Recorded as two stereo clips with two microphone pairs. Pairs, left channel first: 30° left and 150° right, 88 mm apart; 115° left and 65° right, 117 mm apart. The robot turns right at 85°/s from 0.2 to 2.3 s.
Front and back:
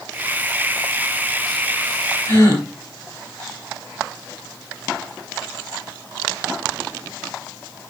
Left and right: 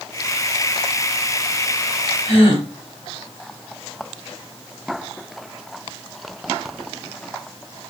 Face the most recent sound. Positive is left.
turn(degrees=90)